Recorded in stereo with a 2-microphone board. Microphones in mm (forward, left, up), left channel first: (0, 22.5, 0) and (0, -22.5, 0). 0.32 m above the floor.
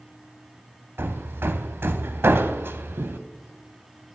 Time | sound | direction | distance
1.0 | hammering | 60° right (ahead or behind) | 0.6 m